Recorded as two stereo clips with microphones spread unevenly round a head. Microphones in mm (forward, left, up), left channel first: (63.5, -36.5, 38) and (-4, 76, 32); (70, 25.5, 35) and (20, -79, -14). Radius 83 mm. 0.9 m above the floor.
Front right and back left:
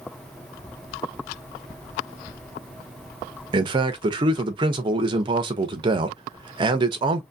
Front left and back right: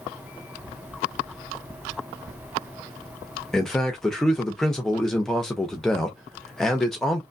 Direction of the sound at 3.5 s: 165° left.